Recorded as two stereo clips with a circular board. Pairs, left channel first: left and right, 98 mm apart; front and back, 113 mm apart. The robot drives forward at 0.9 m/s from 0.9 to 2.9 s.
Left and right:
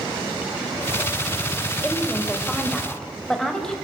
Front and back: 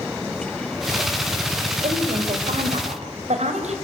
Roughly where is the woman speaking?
Behind.